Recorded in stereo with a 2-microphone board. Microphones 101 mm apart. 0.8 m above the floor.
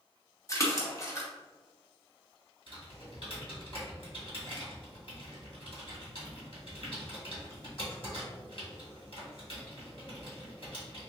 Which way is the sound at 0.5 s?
30° left (ahead or behind).